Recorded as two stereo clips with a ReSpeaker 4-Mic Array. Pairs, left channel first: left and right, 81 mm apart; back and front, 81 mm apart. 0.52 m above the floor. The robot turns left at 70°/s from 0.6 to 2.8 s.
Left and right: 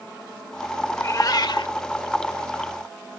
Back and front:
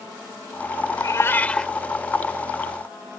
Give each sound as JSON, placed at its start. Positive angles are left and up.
{"t": 0.9, "sound": "a cat meowing", "azimuth_deg": 145}